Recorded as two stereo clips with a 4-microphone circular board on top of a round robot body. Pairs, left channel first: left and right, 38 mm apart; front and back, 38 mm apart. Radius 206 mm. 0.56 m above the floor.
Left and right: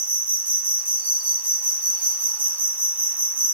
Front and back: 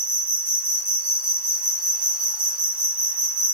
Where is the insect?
135° right, 2.5 m.